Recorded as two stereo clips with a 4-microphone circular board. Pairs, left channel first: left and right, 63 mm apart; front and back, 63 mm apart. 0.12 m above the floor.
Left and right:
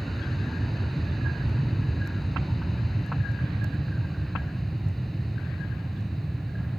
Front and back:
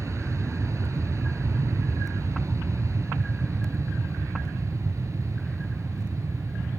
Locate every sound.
0.0 s an aircraft: 175° left